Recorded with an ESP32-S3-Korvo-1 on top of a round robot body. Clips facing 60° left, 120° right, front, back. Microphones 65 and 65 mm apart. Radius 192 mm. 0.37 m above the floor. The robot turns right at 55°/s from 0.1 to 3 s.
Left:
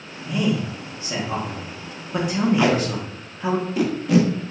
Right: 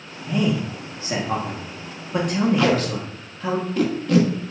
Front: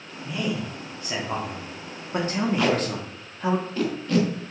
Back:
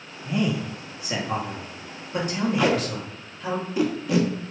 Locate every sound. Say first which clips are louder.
0.2 s a man speaking: right 1 dB, back 3 dB; 135° right, 1.2 m; by 3.6 s 15° left, 1.2 m
2.6 s tape being pulled: even, back 1 dB; 105° left, 1.4 m; by 4.5 s 125° left, 1.4 m